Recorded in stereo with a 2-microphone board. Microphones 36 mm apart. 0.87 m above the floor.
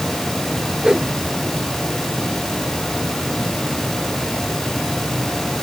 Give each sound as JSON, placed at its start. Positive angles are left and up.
{"t": 0.8, "sound": "a whoosh", "side_deg": -25}